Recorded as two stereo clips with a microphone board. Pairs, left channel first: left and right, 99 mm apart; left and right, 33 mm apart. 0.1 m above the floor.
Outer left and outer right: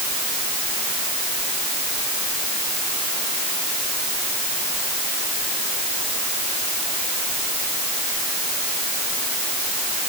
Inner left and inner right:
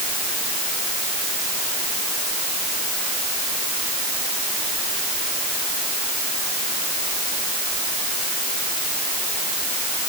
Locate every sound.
Only background noise.